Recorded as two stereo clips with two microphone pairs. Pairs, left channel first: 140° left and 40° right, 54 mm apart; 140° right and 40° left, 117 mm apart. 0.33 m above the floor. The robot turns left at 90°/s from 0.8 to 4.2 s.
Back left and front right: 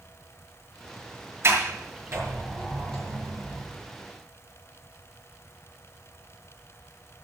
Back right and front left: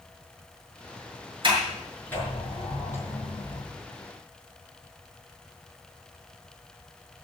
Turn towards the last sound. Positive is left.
turn(degrees=110)